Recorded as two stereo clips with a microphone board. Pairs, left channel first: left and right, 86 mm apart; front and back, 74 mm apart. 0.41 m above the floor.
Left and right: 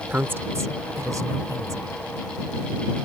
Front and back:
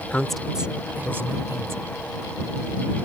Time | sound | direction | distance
0.1 | a woman speaking | 45° right | ?